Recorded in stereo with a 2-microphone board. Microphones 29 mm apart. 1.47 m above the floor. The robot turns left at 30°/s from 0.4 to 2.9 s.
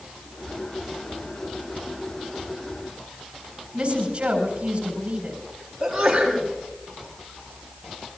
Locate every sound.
3.7 s a woman speaking: 35° right (ahead or behind), 4.5 m
5.8 s a sneeze: 10° right (ahead or behind), 7 m